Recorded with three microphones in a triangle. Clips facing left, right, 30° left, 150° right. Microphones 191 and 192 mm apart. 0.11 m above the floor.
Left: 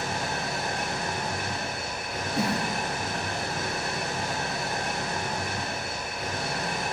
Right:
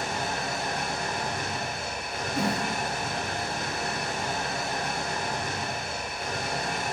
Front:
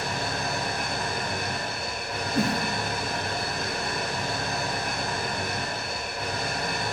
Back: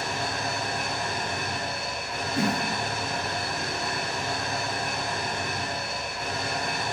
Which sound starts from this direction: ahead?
A whoosh, at 2.4 s.